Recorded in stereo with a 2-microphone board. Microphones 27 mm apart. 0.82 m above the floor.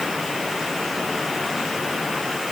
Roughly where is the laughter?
No laughter in this recording.